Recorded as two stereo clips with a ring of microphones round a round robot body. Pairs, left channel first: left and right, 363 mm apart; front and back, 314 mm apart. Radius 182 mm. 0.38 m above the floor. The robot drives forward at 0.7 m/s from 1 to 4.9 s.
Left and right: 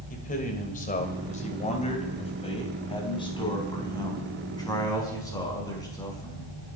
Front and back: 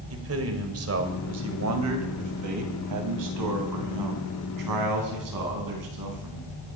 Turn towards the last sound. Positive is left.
turn(degrees=170)